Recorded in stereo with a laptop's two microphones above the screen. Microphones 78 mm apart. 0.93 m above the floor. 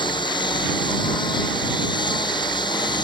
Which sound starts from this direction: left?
A lawn mower, at 0.0 s.